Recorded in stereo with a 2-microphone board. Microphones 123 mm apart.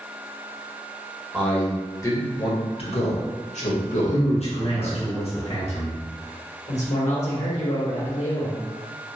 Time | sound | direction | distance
1.3 | a man speaking | 5° left (ahead or behind) | 1.0 m
4.1 | a man speaking | 60° left (ahead or behind) | 0.9 m
6.7 | a man speaking | 70° left (ahead or behind) | 1.4 m